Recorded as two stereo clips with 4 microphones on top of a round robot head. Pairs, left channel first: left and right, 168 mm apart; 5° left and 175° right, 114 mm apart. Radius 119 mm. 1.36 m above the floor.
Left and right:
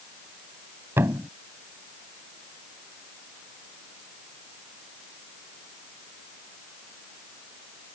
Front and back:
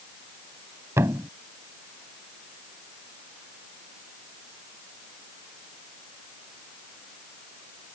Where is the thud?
150° right.